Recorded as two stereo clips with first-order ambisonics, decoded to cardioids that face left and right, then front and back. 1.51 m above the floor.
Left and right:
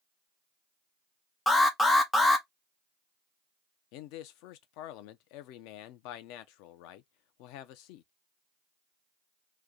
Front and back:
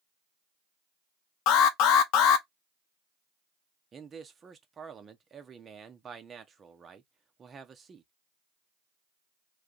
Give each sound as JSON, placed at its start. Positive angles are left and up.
{"t": 1.5, "sound": "an alarm", "azimuth_deg": 10, "distance_m": 0.7}
{"t": 3.9, "sound": "a man speaking", "azimuth_deg": 110, "distance_m": 0.7}